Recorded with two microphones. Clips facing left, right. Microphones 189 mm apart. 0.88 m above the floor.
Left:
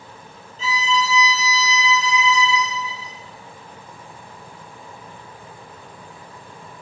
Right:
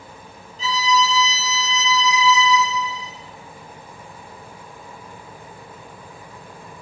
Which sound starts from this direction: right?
A violin, at 0.6 s.